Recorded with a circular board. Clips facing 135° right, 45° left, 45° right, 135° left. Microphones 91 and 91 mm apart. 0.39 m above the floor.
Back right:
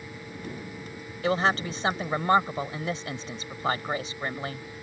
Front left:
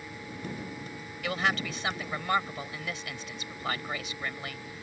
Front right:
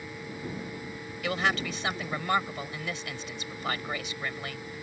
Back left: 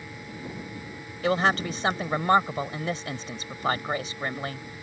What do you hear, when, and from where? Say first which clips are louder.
1.2 s a woman speaking: back right 5 dB, back left 6 dB; straight behind